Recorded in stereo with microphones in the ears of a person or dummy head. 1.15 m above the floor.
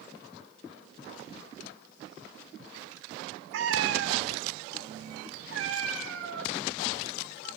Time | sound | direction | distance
3.5 | a cat meowing | 60° right (ahead or behind) | 2 m